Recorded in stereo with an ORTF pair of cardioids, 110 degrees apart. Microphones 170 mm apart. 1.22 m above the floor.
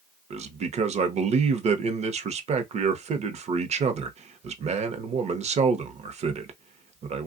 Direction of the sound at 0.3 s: 40° right.